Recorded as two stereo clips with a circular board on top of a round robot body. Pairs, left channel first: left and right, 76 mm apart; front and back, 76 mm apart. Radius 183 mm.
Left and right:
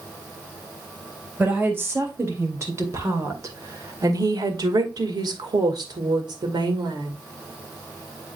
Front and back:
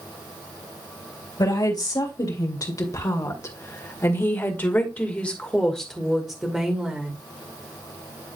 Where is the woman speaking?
30° right, 3 m; by 7.2 s 105° right, 2 m.